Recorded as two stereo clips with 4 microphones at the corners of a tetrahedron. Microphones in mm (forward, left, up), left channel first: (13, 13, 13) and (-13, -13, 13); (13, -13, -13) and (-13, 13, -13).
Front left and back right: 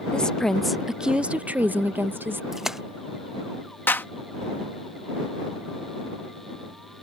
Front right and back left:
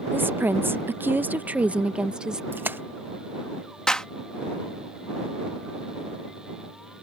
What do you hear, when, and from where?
0.1 s a woman speaking: 110° left; by 2.4 s 155° right
2.5 s a splash: 145° left
3.9 s a clap: 25° left